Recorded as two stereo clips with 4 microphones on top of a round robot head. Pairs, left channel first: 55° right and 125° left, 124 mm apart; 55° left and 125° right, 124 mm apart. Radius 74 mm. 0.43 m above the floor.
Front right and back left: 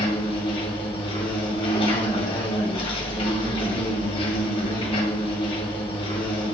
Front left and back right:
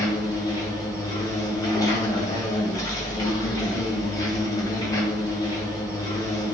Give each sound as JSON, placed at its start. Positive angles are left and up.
{"t": 0.0, "sound": "an insect", "azimuth_deg": -5, "distance_m": 2.5}